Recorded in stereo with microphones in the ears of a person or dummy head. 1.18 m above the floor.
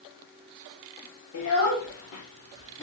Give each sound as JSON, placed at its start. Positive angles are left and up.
{"t": 1.3, "sound": "a child speaking", "side_deg": 85, "distance_m": 1.4}